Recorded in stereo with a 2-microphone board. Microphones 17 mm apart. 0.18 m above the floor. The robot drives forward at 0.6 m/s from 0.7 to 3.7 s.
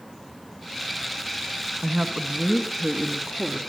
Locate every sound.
1.8 s a woman speaking: 35° right (ahead or behind), 1.6 m; by 3.6 s 40° right (ahead or behind), 1.4 m